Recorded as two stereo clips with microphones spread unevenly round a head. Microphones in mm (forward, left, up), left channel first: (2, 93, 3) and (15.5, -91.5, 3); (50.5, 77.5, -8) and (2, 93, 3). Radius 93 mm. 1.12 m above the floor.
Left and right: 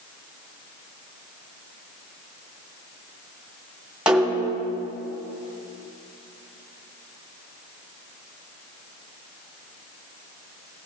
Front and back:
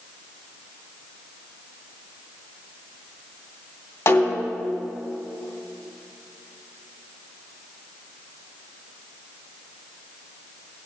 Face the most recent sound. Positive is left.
turn(degrees=0)